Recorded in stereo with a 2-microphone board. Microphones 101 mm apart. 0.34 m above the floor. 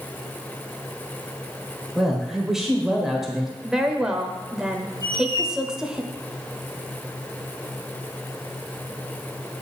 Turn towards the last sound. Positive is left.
turn(degrees=45)  # may be behind; listen again after turning